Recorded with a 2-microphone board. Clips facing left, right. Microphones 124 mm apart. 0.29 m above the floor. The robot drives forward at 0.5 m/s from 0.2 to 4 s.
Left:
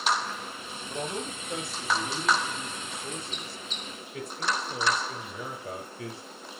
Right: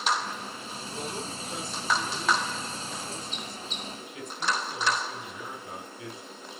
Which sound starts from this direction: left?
A man speaking, at 0.9 s.